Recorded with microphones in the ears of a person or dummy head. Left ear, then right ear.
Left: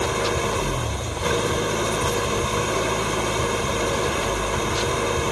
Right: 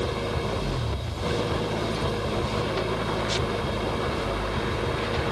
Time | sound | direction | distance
0.0 | an engine running | 45° left (ahead or behind) | ?